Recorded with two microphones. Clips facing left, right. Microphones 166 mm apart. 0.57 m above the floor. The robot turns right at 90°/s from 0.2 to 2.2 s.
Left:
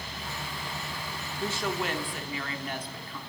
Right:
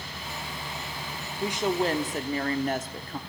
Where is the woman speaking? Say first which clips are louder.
Right 5 dB; 165° right, 1.5 m; by 3.2 s 95° right, 1.5 m.